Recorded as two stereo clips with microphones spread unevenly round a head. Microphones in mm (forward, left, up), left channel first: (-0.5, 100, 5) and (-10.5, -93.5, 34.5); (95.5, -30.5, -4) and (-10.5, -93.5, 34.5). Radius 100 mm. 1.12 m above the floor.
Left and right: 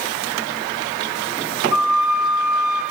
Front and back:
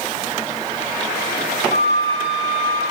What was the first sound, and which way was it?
A flute, 125° right.